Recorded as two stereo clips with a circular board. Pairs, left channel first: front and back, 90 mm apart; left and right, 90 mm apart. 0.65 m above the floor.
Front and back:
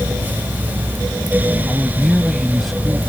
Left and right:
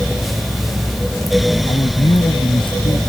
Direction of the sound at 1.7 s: 85° left.